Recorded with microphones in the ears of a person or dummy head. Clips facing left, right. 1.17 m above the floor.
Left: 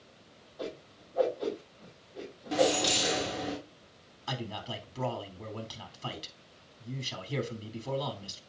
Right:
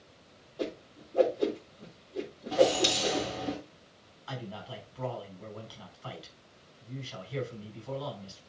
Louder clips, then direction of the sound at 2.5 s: Right 2 dB; 25° left (ahead or behind).